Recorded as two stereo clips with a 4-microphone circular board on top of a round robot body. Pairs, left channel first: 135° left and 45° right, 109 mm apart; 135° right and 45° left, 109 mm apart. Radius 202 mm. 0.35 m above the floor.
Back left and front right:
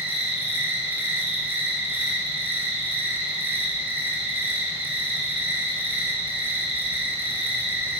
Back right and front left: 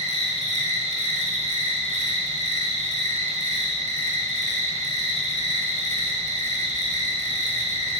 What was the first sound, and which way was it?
An insect, 30° left.